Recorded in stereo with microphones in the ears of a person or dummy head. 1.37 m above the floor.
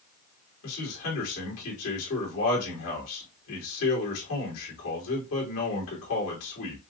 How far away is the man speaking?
About 2.5 m.